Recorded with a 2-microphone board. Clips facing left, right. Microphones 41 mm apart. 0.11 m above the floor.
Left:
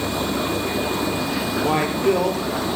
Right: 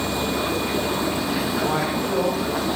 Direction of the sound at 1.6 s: 55° left (ahead or behind).